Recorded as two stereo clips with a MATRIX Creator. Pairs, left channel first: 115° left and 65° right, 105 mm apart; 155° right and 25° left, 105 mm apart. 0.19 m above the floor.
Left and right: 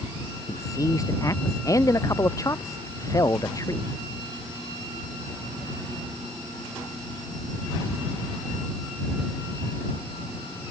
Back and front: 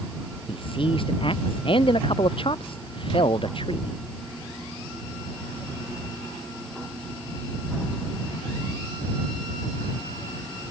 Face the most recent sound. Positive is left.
turn(degrees=170)